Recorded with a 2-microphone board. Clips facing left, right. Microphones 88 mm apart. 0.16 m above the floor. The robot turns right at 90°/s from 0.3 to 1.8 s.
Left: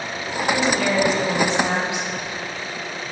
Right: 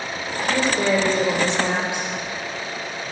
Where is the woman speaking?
Centre (ahead or behind), 5 m; by 3.1 s 60° right (ahead or behind), 5 m.